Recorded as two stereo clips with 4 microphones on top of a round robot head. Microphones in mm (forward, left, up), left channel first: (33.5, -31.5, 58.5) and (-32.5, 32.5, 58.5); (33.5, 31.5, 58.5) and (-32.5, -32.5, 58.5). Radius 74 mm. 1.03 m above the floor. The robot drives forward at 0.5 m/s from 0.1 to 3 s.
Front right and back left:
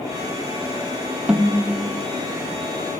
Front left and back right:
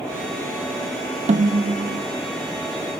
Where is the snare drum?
145° right, 0.5 m; by 2.1 s 160° right, 0.9 m.